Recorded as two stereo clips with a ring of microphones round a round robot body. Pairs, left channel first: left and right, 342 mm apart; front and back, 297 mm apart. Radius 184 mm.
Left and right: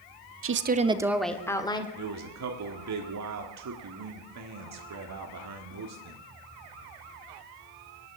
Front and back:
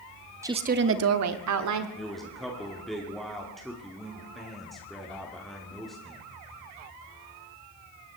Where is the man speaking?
90° right, 1.5 m.